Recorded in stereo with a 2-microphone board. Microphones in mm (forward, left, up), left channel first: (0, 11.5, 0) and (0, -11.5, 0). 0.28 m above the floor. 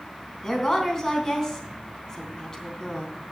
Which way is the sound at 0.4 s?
25° left (ahead or behind).